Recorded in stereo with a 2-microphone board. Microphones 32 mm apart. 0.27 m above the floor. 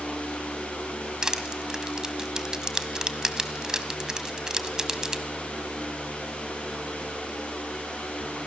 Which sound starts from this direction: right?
Crushing, at 1.2 s.